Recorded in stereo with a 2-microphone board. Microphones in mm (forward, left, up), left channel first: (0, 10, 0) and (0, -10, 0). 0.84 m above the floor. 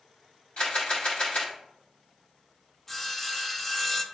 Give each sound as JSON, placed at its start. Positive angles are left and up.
{"t": 0.6, "sound": "a camera shutter", "side_deg": 70, "distance_m": 3.0}
{"t": 2.9, "sound": "sawing", "side_deg": 10, "distance_m": 0.8}